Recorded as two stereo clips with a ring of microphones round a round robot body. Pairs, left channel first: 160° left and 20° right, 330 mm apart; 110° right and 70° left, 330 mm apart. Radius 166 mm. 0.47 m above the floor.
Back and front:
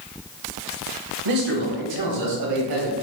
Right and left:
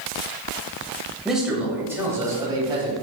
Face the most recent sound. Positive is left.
turn(degrees=-10)